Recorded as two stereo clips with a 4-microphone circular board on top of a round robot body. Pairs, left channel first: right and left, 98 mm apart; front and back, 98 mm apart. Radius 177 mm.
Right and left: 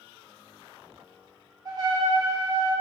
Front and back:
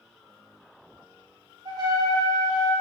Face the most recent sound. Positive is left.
turn(degrees=135)